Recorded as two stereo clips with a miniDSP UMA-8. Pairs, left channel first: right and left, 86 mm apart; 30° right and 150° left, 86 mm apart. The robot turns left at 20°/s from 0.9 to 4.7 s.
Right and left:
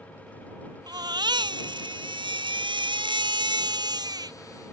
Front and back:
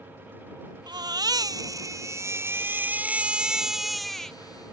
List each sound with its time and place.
0.9 s a baby crying: 120° left; by 4.4 s 55° left